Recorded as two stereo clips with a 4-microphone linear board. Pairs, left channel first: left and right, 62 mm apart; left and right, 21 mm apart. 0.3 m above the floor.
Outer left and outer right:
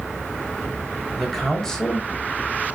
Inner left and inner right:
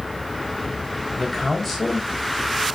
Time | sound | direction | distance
1.2 | a man speaking | centre (ahead or behind) | 1.6 m